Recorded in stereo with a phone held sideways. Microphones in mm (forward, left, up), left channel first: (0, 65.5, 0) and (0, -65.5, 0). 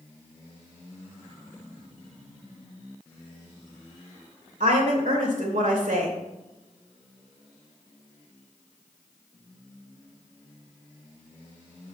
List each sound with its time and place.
4.6 s a woman speaking: 85° right, 2.5 m